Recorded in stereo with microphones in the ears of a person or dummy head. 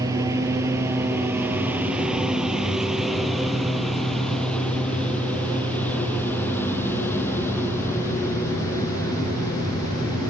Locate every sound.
0.0 s a lawn mower: 25° right (ahead or behind); by 10.3 s 15° left (ahead or behind)